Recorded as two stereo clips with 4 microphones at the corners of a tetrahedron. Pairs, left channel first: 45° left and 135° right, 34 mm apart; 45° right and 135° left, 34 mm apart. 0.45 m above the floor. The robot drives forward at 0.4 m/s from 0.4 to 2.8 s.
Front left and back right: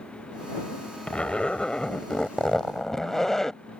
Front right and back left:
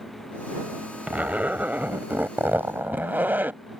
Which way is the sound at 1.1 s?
100° left.